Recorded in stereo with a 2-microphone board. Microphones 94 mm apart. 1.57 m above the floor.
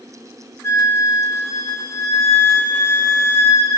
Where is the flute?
25° left (ahead or behind), 1.4 m.